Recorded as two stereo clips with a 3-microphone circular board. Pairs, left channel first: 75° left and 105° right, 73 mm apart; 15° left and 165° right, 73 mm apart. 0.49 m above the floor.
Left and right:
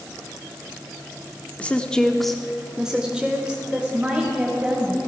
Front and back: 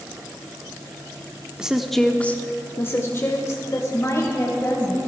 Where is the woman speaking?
125° left, 0.8 m; by 5.0 s 35° right, 2.5 m.